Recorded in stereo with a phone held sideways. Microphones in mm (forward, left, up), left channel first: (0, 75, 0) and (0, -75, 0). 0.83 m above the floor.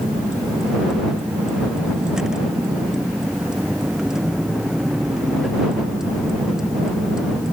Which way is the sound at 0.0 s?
5° right (ahead or behind).